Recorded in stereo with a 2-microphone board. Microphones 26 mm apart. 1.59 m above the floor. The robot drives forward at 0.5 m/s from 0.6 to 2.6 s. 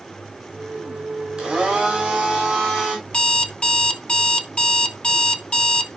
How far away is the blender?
About 4 m.